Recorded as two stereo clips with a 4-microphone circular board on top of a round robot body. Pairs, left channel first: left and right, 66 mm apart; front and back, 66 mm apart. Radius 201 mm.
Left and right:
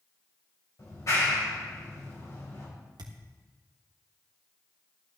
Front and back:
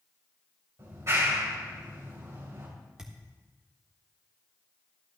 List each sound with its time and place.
0.8 s a clap: 130° left, 4 m
3.0 s a thud: 100° right, 1.3 m